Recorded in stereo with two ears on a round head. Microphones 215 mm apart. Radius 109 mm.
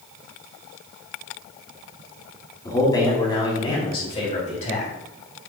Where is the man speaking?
15° left (ahead or behind), 4 m; by 4.9 s 35° left (ahead or behind), 3 m.